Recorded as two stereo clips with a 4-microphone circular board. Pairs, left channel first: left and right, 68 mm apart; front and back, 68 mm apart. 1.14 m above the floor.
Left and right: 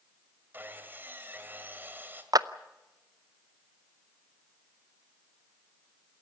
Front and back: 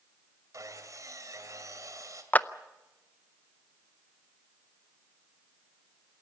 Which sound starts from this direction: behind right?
Sawing, at 0.5 s.